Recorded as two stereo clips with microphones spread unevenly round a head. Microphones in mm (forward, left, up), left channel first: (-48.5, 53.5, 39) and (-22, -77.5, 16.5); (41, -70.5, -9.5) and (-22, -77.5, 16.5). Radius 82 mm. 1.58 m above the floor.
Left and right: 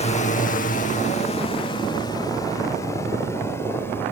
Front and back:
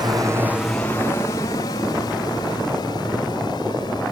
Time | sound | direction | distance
0.0 | a drone | 135° left | ?